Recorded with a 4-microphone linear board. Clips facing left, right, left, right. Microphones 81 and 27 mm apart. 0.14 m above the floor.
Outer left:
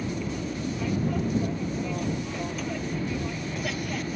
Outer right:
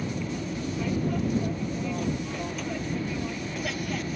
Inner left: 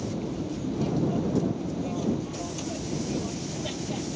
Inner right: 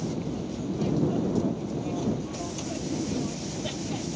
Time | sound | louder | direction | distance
0.0 | an aircraft | outer left 1 dB, even | centre (ahead or behind) | ?